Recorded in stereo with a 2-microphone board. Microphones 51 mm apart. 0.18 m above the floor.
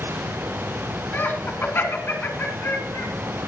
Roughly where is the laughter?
Left.